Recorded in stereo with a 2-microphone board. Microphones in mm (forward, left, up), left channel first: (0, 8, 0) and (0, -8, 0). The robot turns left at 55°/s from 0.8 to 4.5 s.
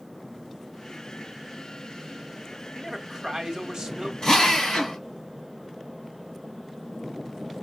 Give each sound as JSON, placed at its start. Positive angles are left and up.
{"t": 2.8, "sound": "a man speaking", "azimuth_deg": -25, "distance_m": 1.1}
{"t": 4.2, "sound": "a drill", "side_deg": 60, "distance_m": 1.7}